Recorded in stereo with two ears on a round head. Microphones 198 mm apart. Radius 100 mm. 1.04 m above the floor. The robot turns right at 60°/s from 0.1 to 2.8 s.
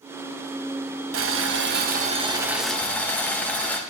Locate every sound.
1.1 s boiling: 90° right, 1.3 m; by 3.8 s 10° left, 1.3 m